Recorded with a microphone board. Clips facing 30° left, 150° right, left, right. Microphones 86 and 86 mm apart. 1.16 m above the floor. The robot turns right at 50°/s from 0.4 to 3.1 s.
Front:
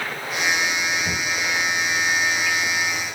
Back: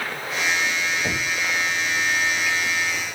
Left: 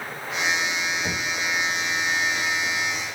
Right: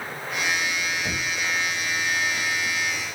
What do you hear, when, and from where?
1.0 s knocking: 155° left, 3.5 m; by 1.3 s 165° left, 3.5 m